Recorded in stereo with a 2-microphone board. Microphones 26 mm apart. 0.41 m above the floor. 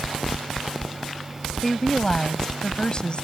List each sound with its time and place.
1.6 s a woman speaking: 10° left (ahead or behind); by 3.2 s 40° left (ahead or behind)